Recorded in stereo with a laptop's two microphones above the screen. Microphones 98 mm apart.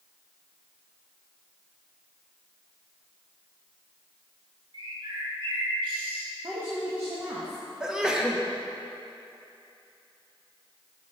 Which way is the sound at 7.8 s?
5° right (ahead or behind).